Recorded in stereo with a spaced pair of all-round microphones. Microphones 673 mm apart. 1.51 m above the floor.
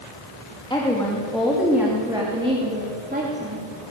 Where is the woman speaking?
5° left (ahead or behind), 3 m; by 3.6 s 15° right (ahead or behind), 4 m.